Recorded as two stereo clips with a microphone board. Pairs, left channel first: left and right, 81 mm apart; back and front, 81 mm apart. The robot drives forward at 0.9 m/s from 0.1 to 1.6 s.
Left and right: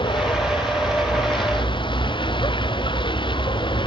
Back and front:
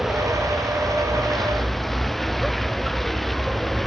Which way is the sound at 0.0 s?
85° left.